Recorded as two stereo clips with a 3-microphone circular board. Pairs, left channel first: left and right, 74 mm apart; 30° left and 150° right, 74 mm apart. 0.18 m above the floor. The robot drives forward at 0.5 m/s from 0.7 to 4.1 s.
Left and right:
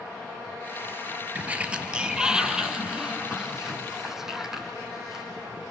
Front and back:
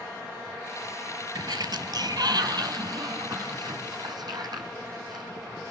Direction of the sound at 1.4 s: 160° right.